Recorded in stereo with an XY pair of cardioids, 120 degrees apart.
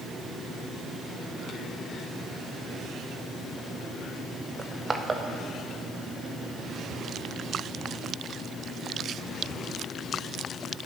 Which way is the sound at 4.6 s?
25° right.